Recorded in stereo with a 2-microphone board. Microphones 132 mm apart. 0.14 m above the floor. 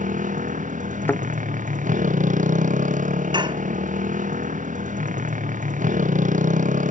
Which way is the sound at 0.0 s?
80° right.